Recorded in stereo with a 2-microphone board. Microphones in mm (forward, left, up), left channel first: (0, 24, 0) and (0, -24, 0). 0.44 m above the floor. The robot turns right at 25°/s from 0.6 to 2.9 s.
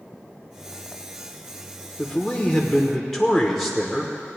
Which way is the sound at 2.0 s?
15° left (ahead or behind).